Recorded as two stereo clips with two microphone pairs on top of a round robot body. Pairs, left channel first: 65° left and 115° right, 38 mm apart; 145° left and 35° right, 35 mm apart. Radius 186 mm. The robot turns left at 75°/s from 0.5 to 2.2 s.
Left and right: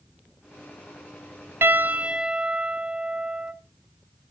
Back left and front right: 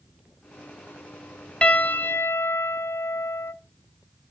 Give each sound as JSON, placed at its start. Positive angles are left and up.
{"t": 1.6, "sound": "a piano", "azimuth_deg": -145, "distance_m": 0.6}